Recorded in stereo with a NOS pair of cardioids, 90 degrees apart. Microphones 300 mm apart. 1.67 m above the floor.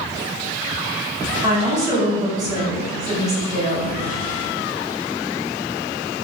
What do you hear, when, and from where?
1.4 s a woman speaking: 10° right, 1.4 m